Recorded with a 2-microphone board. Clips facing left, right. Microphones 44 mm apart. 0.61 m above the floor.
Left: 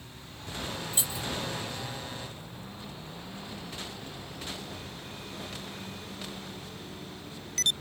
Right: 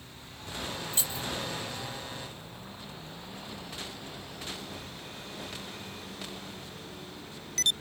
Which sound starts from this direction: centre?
Keys jangling, at 0.9 s.